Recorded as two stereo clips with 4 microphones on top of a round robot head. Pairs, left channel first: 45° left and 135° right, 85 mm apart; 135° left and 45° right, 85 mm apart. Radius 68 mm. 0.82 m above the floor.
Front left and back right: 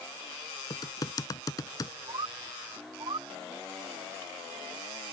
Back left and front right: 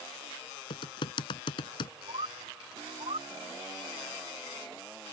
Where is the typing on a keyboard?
100° left.